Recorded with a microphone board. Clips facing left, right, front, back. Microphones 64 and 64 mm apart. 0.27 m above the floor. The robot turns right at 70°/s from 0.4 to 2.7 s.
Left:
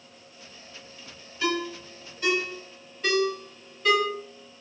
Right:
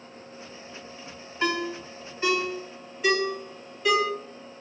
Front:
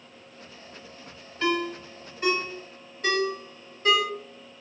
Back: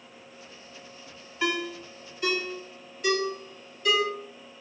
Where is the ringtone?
100° right, 0.9 m; by 4.0 s 10° right, 0.9 m.